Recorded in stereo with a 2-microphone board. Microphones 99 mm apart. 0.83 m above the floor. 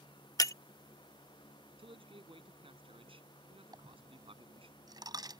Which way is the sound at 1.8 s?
65° right (ahead or behind).